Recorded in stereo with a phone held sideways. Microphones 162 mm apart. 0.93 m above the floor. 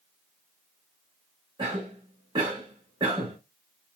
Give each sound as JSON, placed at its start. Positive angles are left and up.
{"t": 1.6, "sound": "a cough", "side_deg": -30, "distance_m": 1.0}